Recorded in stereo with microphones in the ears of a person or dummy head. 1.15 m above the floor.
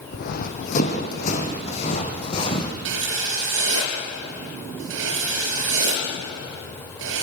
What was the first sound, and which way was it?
Running footsteps, 55° left (ahead or behind).